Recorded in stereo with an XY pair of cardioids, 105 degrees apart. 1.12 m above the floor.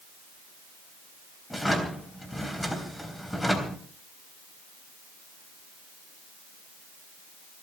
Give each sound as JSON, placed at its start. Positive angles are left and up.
{"t": 1.5, "sound": "a drawer", "azimuth_deg": 5, "distance_m": 3.5}